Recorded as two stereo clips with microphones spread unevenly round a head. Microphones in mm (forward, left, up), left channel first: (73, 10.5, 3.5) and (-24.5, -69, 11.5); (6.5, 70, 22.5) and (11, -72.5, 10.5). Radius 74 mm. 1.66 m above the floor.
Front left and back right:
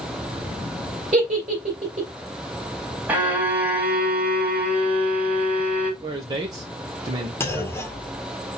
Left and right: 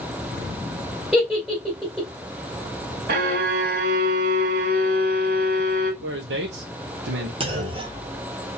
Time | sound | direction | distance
1.1 | a giggle | 175° right | 2.5 m
3.1 | a violin | 70° right | 1.4 m
6.0 | a man speaking | 85° right | 0.9 m
7.4 | a clunk | 35° right | 1.4 m